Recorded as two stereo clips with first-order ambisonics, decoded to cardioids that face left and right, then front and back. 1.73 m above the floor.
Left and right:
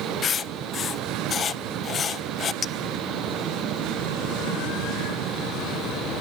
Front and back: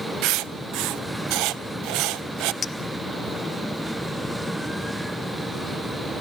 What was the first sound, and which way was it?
Writing, 155° left.